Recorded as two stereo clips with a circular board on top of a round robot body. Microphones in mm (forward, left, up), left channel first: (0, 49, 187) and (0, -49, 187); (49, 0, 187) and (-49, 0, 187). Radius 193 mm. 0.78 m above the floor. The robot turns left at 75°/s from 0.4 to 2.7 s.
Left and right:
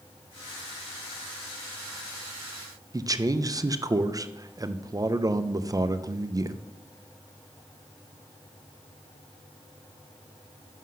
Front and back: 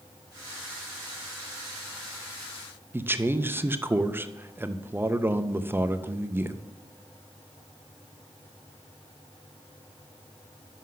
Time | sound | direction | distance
2.9 | a man speaking | 120° right | 0.7 m